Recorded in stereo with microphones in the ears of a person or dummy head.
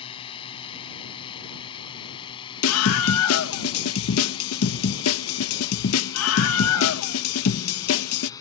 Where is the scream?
85° left.